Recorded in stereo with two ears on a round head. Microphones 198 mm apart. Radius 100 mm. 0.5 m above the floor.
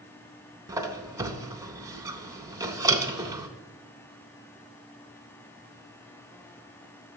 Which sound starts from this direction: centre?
A squeak, at 0.7 s.